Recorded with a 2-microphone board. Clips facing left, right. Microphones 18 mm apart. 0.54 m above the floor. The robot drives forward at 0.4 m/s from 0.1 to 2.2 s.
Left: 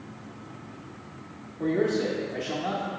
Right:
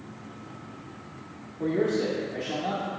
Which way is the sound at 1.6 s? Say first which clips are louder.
Even; 5° left (ahead or behind).